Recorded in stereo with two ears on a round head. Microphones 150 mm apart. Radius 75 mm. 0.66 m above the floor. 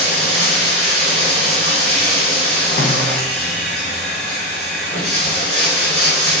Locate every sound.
0.0 s running water: centre (ahead or behind), 1.8 m
2.8 s a snare drum: 55° left (ahead or behind), 0.7 m